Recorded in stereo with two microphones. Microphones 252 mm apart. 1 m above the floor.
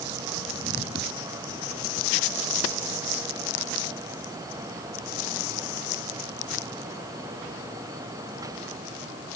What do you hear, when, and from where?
Only background noise.